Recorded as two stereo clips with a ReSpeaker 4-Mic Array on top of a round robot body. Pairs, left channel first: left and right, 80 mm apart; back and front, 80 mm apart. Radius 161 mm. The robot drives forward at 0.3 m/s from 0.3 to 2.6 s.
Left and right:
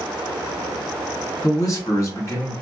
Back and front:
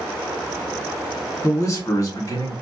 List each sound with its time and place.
1.4 s a man speaking: 130° left, 1.5 m; by 2.5 s 140° left, 1.7 m